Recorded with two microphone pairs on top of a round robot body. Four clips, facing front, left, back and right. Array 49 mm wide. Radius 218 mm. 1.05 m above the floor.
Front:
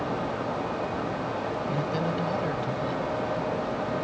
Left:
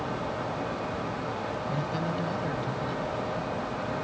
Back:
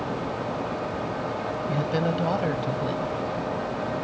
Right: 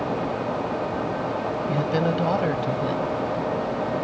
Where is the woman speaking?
110° right.